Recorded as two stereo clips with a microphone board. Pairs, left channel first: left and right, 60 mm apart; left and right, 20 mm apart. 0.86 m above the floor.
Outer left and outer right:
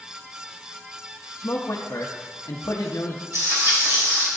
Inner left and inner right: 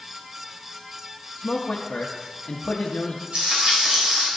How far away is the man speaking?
About 0.7 m.